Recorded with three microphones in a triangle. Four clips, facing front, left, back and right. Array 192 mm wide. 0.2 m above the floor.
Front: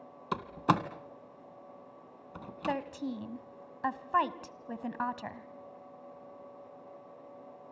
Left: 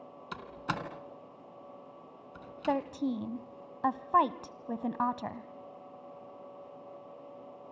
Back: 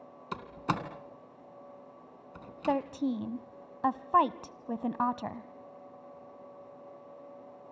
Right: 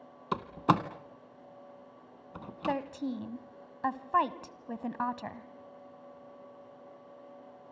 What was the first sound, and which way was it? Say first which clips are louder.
A door slam: right 9 dB, front 5 dB; 60° right.